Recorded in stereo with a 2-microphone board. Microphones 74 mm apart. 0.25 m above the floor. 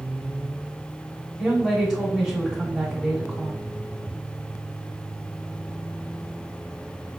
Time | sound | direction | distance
1.4 | a woman speaking | 10° right (ahead or behind) | 1.0 m